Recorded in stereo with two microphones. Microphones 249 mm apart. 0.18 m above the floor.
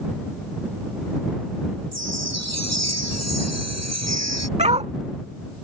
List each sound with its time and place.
1.9 s a chime: 85° right
4.6 s a dog barking: 25° right (ahead or behind)